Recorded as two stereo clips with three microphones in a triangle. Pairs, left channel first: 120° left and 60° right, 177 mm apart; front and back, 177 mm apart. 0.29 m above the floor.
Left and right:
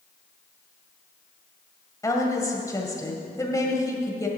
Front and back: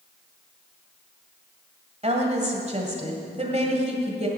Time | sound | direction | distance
2.0 | a woman speaking | straight behind | 1.8 m